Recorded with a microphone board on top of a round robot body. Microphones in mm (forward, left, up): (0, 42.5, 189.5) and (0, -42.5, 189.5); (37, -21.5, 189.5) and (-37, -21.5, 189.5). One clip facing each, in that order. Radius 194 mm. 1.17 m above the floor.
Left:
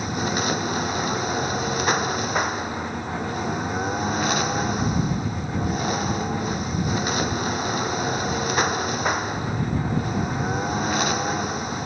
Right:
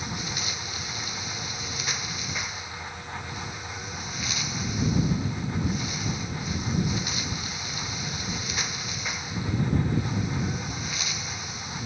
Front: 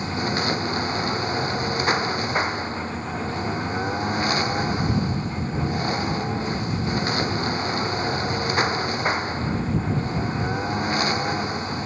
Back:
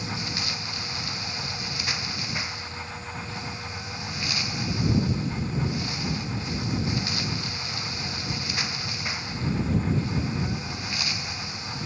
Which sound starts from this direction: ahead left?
A lawn mower, at 0.0 s.